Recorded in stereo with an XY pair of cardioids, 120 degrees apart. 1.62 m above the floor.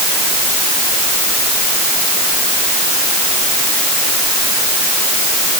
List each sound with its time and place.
Only background noise.